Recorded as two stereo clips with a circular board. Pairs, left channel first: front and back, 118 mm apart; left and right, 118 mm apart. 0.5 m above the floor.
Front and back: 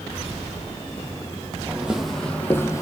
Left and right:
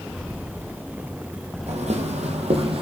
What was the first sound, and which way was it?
Footsteps, 105° right.